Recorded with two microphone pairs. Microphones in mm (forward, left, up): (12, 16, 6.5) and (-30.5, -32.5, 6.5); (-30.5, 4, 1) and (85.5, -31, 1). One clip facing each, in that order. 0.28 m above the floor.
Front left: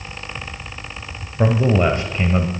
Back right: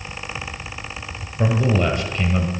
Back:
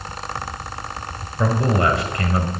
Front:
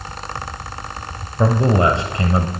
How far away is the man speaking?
About 1.0 m.